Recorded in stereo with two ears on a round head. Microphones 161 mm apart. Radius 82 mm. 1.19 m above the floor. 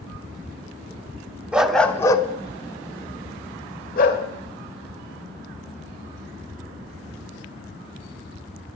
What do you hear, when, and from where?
1.5 s a dog barking: 5° right (ahead or behind), 0.8 m; by 4.2 s 55° left (ahead or behind), 1.8 m